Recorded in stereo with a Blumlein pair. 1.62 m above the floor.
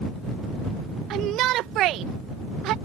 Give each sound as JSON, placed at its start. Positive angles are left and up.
{"t": 1.1, "sound": "a shout", "azimuth_deg": -35}